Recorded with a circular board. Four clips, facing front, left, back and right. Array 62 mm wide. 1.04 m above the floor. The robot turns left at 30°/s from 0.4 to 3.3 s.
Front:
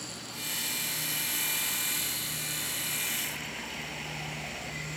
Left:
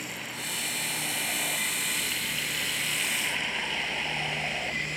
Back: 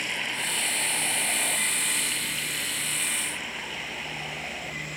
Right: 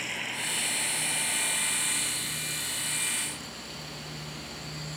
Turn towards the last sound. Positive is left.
turn(degrees=105)